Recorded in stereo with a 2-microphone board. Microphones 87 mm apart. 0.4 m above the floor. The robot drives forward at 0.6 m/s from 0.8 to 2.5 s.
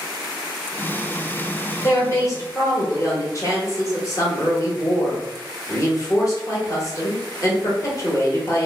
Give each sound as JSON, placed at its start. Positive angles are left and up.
{"t": 1.8, "sound": "a woman speaking", "side_deg": 35, "distance_m": 1.2}